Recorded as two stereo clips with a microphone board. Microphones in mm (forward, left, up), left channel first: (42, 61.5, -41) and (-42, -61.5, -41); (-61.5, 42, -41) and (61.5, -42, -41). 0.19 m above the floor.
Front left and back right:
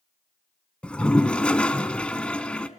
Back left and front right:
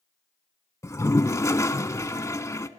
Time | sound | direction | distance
0.8 | a toilet flushing | 125° left | 0.9 m